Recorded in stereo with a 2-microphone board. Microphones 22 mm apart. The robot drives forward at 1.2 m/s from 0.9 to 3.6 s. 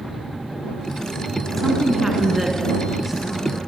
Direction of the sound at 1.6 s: 20° right (ahead or behind).